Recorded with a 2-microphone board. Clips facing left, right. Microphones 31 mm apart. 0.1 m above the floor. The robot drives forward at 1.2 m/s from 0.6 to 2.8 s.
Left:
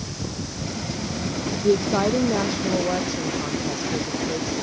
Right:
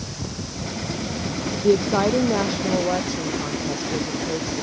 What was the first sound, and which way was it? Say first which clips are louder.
A woman speaking: right 2 dB; 10° right (ahead or behind).